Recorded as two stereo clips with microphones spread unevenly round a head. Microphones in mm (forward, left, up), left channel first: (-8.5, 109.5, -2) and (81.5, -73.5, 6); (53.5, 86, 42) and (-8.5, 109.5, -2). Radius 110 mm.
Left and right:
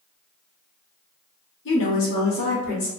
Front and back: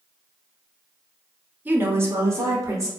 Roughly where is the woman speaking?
Behind left.